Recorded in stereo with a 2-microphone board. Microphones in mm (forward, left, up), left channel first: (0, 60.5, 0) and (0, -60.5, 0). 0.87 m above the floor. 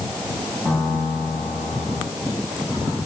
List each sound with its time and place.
0.7 s a piano: 10° right (ahead or behind), 5.5 m